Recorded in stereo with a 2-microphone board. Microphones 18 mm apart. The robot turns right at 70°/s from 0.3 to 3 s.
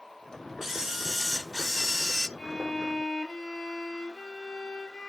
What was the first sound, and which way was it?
A camera shutter, 25° right (ahead or behind).